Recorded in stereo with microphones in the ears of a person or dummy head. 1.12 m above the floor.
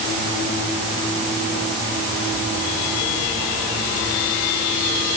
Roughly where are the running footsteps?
I don't hear running footsteps.